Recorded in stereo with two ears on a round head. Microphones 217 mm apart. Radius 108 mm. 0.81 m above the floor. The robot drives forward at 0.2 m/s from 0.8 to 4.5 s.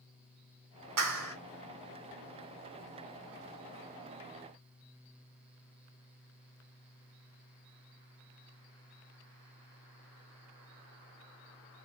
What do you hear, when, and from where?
1.0 s a clap: 70° right (ahead or behind), 1.8 m